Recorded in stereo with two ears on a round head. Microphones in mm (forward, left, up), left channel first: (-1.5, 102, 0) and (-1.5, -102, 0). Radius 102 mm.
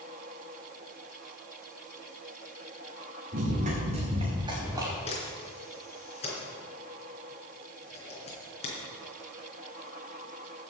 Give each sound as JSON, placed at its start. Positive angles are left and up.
{"t": 3.3, "sound": "running footsteps", "side_deg": -40, "distance_m": 4.5}
{"t": 5.1, "sound": "a camera shutter", "side_deg": 30, "distance_m": 3.5}